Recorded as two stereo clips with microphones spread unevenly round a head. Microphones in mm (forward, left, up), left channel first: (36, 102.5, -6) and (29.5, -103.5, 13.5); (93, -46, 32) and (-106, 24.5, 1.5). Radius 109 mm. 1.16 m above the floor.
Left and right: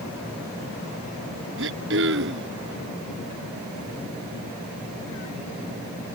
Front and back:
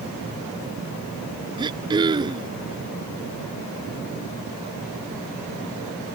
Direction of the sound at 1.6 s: 130° right.